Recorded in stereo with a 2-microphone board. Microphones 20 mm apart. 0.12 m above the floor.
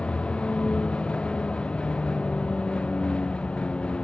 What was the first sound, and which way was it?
A vehicle, 80° left.